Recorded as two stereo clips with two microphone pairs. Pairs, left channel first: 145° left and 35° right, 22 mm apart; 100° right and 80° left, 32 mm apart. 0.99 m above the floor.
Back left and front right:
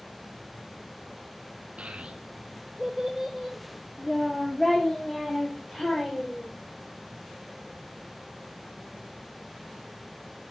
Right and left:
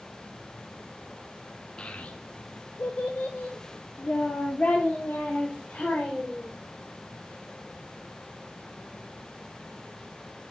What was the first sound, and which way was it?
A child speaking, 40° right.